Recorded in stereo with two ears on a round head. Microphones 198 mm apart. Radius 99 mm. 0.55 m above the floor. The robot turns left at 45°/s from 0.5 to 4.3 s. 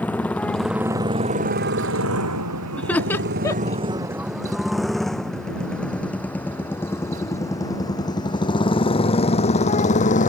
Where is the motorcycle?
5° left (ahead or behind); by 10.3 s 40° left (ahead or behind).